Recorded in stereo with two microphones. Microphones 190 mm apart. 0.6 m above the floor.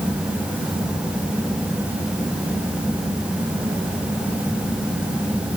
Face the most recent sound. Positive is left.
No sound to turn to.